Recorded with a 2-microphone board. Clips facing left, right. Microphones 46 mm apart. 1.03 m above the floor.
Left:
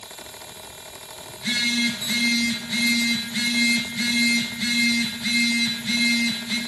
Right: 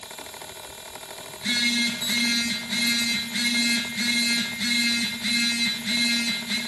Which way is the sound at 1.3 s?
5° right (ahead or behind).